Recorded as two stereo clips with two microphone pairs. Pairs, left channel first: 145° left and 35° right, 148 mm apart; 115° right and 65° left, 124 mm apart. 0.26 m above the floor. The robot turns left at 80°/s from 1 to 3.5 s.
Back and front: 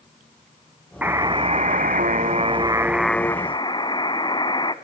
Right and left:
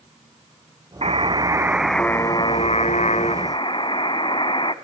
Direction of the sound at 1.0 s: 45° left.